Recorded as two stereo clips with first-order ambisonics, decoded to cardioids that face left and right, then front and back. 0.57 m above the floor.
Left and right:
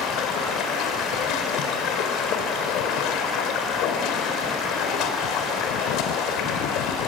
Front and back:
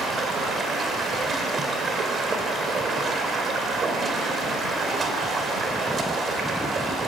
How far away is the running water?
About 2 m.